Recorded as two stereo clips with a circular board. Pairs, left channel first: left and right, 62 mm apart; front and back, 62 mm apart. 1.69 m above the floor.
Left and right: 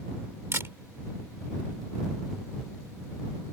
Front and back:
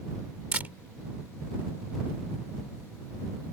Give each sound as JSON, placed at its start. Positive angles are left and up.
{"t": 0.5, "sound": "a camera shutter", "azimuth_deg": -125}